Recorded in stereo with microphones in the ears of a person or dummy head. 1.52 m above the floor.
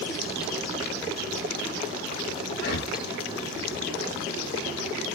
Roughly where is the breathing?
Left.